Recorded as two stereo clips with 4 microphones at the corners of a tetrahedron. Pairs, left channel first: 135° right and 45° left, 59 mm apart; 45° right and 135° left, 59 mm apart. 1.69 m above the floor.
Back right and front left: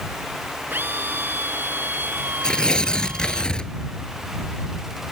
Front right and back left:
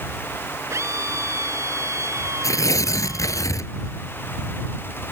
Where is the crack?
No crack in this recording.